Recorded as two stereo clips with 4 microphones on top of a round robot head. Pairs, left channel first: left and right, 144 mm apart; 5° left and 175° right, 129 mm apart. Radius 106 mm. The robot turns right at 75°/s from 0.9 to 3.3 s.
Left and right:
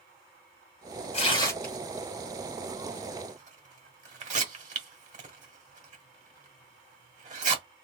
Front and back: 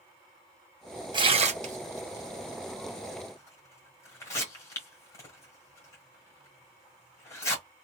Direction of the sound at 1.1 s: 135° left.